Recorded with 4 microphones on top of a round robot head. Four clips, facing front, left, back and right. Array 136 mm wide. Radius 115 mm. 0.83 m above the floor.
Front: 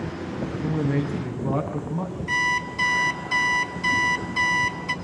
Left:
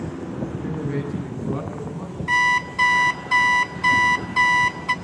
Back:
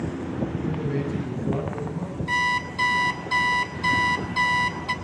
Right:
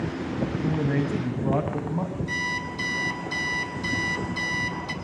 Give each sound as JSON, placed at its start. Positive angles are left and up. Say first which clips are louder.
{"t": 0.5, "sound": "a man speaking", "louder": "right 3 dB, front 2 dB", "azimuth_deg": -60, "distance_m": 6.0}
{"t": 2.3, "sound": "an alarm clock", "louder": "left 10 dB, back 2 dB", "azimuth_deg": 115, "distance_m": 2.0}